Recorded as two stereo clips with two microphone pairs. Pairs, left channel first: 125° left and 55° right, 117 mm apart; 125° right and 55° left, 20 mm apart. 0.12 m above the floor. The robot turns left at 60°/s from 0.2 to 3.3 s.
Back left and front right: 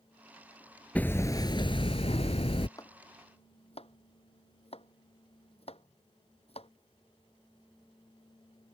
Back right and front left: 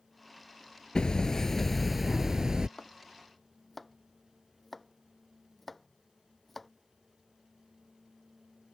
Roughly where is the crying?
No crying in this recording.